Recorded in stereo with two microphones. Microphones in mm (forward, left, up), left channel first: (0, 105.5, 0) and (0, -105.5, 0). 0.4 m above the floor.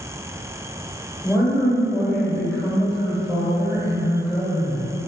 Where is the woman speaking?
5° right (ahead or behind), 1.5 m.